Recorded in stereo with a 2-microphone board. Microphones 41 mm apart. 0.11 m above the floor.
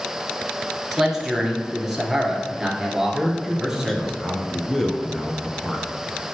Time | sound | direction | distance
0.9 | a man speaking | 5° right (ahead or behind) | 1.4 m
3.1 | a man speaking | 10° left (ahead or behind) | 1.1 m